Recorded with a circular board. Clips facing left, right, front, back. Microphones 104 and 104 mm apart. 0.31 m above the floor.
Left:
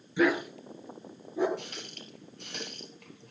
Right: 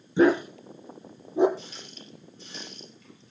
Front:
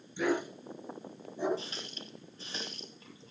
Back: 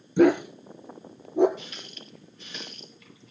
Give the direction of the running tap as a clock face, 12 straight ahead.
10 o'clock.